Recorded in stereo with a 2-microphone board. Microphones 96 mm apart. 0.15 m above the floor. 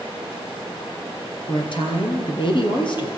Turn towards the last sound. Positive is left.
turn(degrees=55)  # may be behind; listen again after turning